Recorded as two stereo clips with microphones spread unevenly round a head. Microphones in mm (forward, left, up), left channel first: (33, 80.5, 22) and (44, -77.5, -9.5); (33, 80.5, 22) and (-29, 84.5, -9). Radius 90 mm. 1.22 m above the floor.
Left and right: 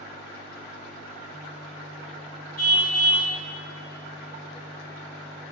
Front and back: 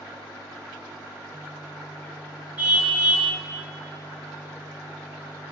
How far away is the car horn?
About 5.5 m.